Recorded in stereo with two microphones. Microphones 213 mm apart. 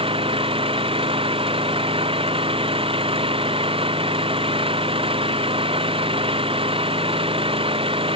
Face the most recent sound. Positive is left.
turn(degrees=-25)  # may be behind; listen again after turning